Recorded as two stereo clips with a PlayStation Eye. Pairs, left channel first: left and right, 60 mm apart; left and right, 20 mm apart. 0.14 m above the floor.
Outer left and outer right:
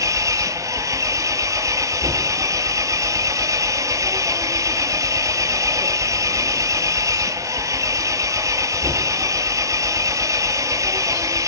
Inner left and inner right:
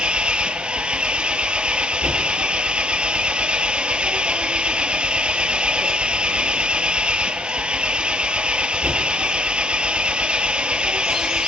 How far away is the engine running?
About 1.3 m.